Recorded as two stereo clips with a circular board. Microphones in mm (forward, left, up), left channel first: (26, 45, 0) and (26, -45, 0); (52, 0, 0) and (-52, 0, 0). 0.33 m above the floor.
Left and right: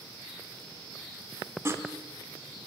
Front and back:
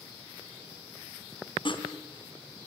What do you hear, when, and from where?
1.6 s sawing: 30° right, 3 m